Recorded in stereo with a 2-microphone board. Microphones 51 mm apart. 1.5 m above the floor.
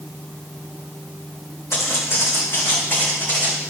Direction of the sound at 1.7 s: 60° left (ahead or behind).